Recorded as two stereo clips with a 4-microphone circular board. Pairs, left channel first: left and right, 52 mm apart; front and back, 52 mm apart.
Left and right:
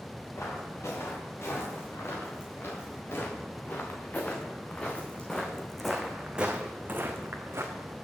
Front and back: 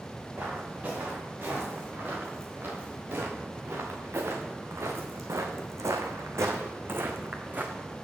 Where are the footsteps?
125° left, 4.5 m; by 8.0 s 120° right, 1.7 m.